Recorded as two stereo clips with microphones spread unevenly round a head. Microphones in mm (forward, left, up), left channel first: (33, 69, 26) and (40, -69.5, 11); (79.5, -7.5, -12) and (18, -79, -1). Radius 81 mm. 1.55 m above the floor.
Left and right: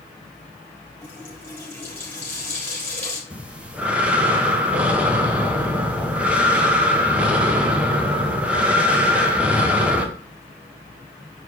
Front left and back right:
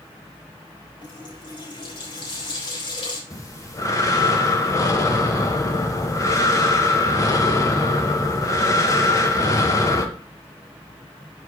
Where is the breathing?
5° right, 1.4 m.